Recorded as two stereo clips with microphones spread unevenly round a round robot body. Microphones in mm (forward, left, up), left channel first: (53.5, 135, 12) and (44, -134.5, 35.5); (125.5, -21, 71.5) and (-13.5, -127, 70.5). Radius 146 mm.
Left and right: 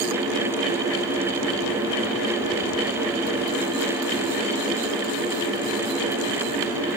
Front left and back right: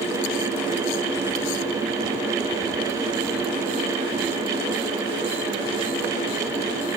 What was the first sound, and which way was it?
Only background noise.